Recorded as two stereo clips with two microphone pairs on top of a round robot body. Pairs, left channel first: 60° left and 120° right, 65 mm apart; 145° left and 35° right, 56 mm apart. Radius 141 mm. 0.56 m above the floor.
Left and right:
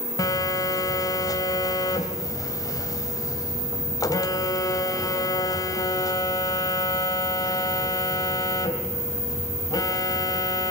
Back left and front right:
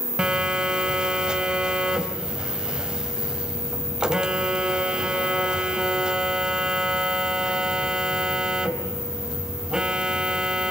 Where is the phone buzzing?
40° left, 3 m.